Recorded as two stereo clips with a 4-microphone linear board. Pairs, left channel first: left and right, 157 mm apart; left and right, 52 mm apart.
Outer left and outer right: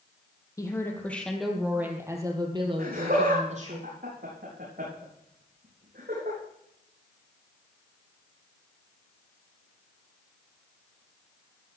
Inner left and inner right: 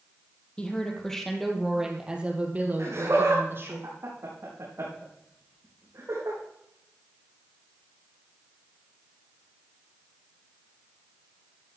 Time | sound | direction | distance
0.6 | a woman speaking | 20° left (ahead or behind) | 3 m
2.8 | laughter | 75° right (ahead or behind) | 4.5 m